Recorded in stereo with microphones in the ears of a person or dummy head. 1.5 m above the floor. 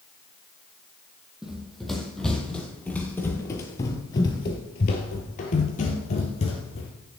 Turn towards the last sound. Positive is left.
turn(degrees=40)  # may be behind; listen again after turning